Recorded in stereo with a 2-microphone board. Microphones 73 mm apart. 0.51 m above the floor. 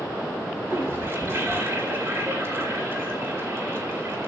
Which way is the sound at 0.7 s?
35° right (ahead or behind).